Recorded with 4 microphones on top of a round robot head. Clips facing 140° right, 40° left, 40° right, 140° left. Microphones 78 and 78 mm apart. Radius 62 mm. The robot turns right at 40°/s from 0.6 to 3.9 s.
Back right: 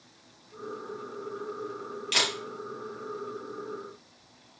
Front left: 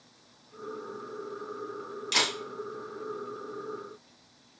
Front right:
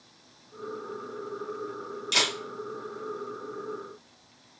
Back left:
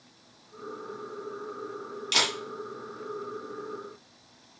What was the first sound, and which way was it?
A camera shutter, 115° left.